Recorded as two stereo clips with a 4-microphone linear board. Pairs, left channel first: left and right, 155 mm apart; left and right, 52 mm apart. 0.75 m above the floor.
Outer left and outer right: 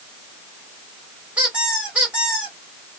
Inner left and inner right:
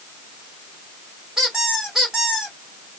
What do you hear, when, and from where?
1.4 s a squeak: 10° right (ahead or behind), 2.5 m